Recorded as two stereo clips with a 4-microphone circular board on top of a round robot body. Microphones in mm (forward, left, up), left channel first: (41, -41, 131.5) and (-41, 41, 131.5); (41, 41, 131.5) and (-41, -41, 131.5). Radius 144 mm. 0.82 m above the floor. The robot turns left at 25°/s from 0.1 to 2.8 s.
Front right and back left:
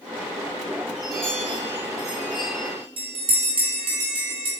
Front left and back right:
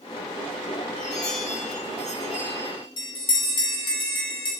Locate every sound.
1.0 s a chime: 45° left, 4 m; by 2.9 s straight ahead, 4 m
3.0 s a bell: 95° left, 3 m